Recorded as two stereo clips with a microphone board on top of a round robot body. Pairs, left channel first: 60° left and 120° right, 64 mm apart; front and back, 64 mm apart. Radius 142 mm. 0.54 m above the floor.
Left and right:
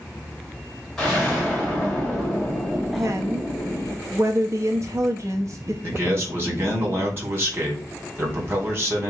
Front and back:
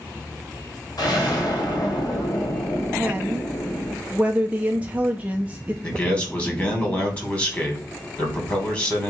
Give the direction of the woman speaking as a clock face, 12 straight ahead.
4 o'clock.